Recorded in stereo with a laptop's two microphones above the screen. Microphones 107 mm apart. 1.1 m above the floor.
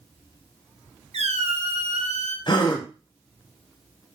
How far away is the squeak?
About 0.6 m.